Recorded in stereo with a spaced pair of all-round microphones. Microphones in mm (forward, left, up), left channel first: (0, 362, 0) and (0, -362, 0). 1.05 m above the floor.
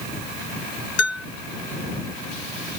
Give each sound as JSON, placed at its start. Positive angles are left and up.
{"t": 1.0, "sound": "a bell", "side_deg": 75}